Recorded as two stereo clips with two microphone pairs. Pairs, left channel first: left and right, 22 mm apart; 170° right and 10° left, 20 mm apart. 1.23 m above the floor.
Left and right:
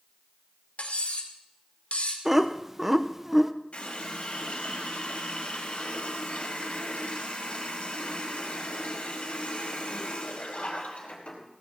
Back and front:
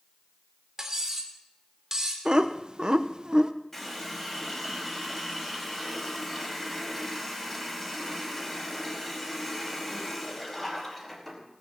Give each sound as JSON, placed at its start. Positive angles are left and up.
{"t": 0.8, "sound": "cutlery clinking", "azimuth_deg": 80, "distance_m": 2.0}
{"t": 2.2, "sound": "laughter", "azimuth_deg": -20, "distance_m": 0.9}
{"t": 3.7, "sound": "a running tap", "azimuth_deg": 115, "distance_m": 5.0}